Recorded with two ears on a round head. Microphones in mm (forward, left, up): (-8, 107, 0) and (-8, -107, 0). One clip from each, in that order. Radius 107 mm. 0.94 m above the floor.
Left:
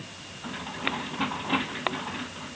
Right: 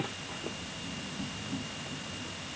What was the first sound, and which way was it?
Only background noise.